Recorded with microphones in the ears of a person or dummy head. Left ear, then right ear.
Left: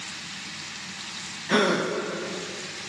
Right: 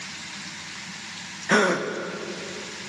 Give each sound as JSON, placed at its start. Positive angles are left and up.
{"t": 1.5, "sound": "a gasp", "side_deg": -30, "distance_m": 0.6}